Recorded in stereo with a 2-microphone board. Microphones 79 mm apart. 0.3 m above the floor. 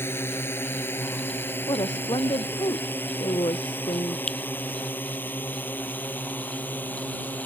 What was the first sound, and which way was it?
A drone, 30° left (ahead or behind).